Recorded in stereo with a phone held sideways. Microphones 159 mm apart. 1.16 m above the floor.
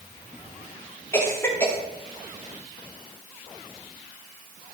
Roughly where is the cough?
Centre.